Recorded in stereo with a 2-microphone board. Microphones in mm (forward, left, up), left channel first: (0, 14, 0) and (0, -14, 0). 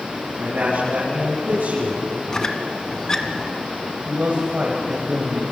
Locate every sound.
0.4 s a man speaking: 80° right, 8 m; by 2.1 s 75° right (ahead or behind), 7.5 m
2.3 s a squeak: 20° left (ahead or behind), 1.7 m
4.0 s a man speaking: 60° right (ahead or behind), 4 m